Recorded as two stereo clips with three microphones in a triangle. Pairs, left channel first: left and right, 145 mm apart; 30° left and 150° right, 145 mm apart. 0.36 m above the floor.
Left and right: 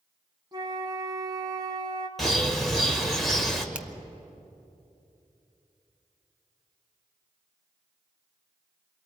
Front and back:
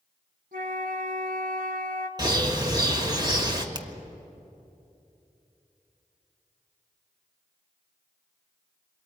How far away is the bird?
About 1.7 m.